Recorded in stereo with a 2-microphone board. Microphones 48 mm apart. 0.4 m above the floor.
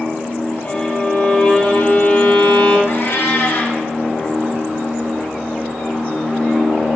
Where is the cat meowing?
50° left (ahead or behind), 3.5 m.